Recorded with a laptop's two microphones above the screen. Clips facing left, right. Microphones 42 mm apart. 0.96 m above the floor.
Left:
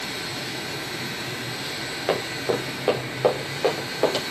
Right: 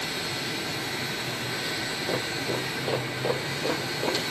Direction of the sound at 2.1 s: 55° left (ahead or behind).